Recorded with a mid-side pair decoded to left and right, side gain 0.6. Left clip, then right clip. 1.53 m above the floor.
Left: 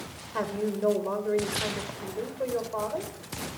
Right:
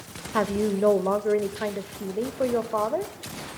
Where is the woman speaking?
45° right, 0.7 m.